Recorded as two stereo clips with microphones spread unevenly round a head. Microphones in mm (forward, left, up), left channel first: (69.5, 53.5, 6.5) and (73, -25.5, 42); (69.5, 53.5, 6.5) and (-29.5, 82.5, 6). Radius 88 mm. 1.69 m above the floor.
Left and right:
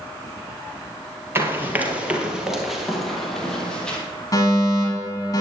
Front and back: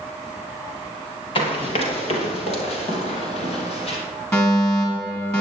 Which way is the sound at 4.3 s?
50° left.